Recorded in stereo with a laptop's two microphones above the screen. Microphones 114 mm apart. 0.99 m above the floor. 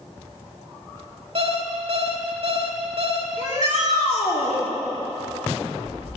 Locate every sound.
1.4 s an alarm clock: 55° right (ahead or behind), 1.2 m
3.4 s a shout: 70° left (ahead or behind), 2.5 m